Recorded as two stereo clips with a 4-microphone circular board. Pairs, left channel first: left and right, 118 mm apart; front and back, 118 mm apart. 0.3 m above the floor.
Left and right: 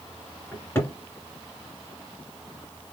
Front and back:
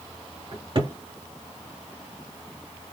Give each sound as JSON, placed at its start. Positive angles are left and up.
{"t": 0.5, "sound": "a cupboard door", "azimuth_deg": 155, "distance_m": 2.0}